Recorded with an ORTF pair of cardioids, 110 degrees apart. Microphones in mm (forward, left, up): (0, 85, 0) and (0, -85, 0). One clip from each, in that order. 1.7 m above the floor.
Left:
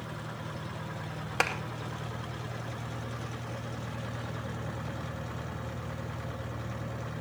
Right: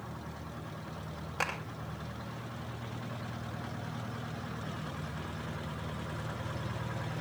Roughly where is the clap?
Ahead left.